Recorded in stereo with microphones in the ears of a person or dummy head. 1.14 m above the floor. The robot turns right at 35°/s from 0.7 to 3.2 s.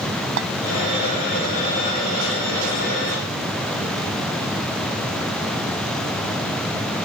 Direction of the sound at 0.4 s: 65° right (ahead or behind).